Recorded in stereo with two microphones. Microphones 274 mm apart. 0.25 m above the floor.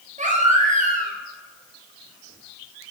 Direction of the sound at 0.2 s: 25° right (ahead or behind).